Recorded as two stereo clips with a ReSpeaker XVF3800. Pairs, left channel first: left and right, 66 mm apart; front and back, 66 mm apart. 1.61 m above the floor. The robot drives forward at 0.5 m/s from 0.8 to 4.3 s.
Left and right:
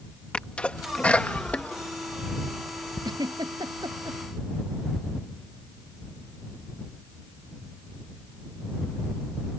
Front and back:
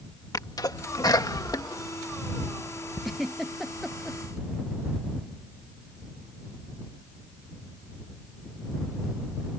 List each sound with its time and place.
0.3 s a sneeze: 15° left; by 3.0 s 30° left
3.0 s a giggle: 90° right; by 4.2 s 95° right